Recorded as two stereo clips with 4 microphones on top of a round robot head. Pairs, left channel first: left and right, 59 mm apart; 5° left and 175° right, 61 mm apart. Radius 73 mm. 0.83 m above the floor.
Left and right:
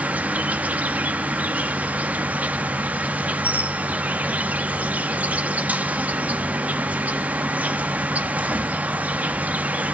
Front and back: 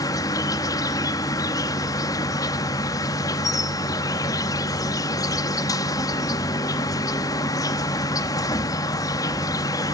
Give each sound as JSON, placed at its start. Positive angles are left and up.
{"t": 0.0, "sound": "an insect", "azimuth_deg": -25, "distance_m": 0.9}